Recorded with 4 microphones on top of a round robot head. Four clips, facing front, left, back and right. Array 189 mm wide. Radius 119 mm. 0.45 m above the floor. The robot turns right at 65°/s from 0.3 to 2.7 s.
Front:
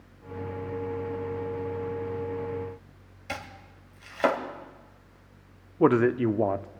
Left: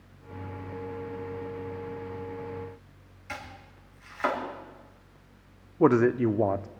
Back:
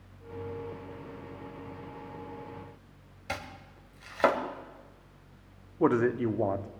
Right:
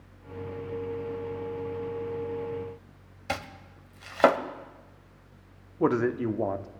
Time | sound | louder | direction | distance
3.3 | chopping | right 6 dB, front 1 dB | 85° right | 1.6 m
5.8 | a man speaking | left 4 dB, front 4 dB | 35° left | 0.7 m